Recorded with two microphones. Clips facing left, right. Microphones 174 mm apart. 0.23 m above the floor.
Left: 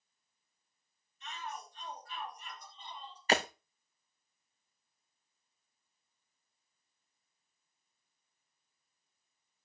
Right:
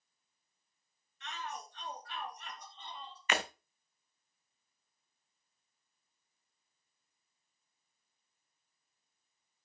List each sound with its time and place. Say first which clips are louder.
1.2 s a shout: right 1 dB; 70° right (ahead or behind), 3 m; by 3.2 s 60° right (ahead or behind), 3.5 m
3.3 s breaking glass: left 5 dB; 35° left (ahead or behind), 1.2 m